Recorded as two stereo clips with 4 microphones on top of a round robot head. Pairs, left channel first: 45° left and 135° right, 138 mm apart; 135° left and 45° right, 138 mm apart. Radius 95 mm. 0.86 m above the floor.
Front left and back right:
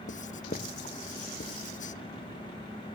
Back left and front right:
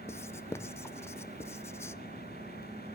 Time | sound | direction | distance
0.1 | writing | 65° left | 0.8 m